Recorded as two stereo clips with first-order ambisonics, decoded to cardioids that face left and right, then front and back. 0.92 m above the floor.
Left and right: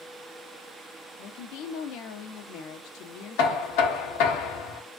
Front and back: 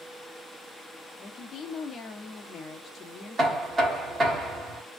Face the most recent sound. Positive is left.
turn(degrees=105)